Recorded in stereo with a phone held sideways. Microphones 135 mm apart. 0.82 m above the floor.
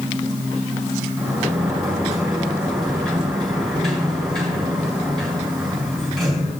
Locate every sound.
1.2 s a sliding door: centre (ahead or behind), 4 m